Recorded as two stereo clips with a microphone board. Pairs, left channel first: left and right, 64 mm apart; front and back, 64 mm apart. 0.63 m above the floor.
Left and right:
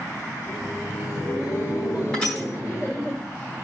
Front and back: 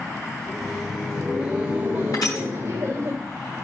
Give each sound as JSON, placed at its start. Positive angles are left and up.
{"t": 0.4, "sound": "laughter", "azimuth_deg": 85, "distance_m": 1.9}
{"t": 2.1, "sound": "crushing", "azimuth_deg": 15, "distance_m": 4.5}